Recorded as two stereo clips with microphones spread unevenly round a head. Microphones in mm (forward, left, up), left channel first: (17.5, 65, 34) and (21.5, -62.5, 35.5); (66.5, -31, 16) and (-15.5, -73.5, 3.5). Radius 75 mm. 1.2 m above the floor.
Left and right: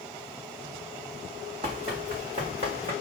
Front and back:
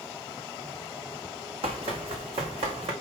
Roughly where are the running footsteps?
Behind right.